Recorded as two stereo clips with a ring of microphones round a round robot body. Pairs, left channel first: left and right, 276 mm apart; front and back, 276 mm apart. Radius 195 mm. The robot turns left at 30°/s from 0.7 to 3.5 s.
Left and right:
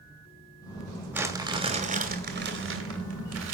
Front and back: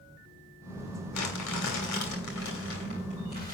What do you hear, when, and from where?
1.1 s crumpling: 10° right, 2.5 m; by 3.5 s 80° right, 2.5 m